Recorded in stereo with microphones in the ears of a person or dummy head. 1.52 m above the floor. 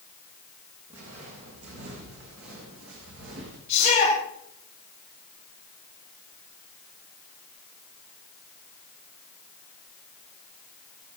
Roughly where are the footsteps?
Right.